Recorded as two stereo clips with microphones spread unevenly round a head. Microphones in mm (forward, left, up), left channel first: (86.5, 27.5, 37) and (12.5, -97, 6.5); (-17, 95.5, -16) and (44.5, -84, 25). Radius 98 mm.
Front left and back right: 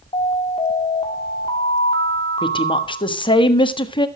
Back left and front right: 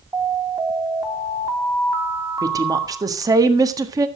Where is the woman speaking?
Straight ahead, 1.5 m.